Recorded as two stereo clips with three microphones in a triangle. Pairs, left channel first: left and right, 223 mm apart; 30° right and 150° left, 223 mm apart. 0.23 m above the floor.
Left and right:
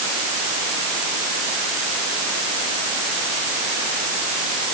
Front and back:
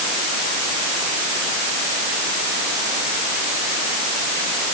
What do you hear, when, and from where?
Only background noise.